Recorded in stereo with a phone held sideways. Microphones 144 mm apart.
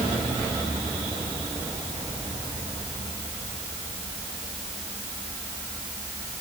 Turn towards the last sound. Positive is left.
No sound to turn to.